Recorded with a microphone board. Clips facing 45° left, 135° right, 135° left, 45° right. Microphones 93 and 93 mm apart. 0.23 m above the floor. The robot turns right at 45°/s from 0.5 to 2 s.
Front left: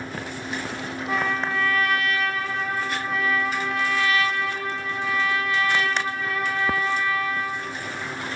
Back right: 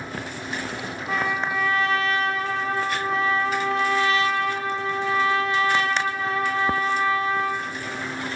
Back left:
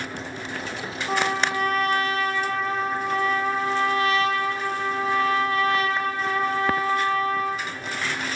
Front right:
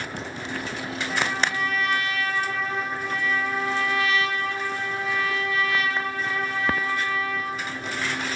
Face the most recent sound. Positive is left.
turn(degrees=175)